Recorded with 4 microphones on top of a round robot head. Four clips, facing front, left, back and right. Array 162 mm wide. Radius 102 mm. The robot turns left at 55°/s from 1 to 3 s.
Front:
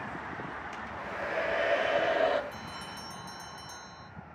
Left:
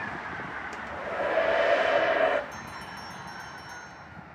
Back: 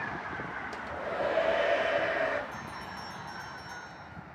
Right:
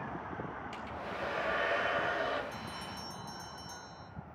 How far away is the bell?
About 1.2 m.